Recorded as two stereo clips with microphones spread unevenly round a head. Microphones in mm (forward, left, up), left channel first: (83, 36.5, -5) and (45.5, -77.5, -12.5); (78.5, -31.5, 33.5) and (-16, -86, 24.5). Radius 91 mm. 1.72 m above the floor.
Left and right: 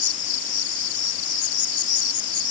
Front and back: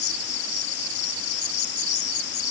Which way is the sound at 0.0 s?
65° left.